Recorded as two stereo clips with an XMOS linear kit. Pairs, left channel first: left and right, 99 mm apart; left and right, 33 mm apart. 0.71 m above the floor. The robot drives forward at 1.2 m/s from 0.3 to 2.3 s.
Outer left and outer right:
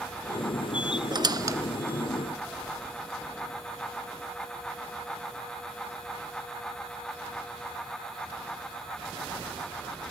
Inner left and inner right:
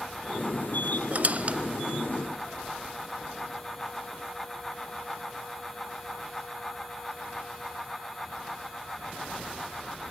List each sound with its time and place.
1.1 s a squeak: 45° right (ahead or behind), 0.6 m; by 2.6 s 15° right (ahead or behind), 1.5 m